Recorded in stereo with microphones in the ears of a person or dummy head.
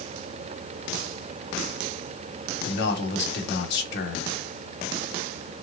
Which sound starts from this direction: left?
A man speaking, at 2.6 s.